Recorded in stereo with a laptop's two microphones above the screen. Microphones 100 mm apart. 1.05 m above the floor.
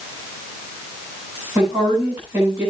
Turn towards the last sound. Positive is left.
turn(degrees=-30)  # may be behind; listen again after turning